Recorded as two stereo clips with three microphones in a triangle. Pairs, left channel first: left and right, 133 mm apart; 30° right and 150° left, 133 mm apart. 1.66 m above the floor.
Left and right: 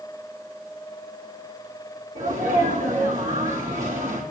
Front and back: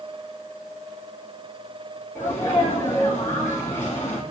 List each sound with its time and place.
2.1 s a sneeze: 100° right, 3 m